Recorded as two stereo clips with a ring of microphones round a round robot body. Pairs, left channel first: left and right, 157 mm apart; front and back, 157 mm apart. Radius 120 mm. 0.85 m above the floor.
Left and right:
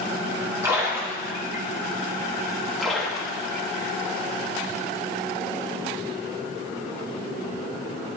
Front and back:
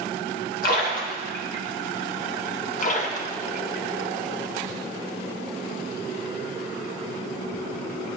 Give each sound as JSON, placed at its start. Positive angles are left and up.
{"t": 0.6, "sound": "a splash", "azimuth_deg": -15, "distance_m": 1.3}
{"t": 2.8, "sound": "a splash", "azimuth_deg": 0, "distance_m": 1.0}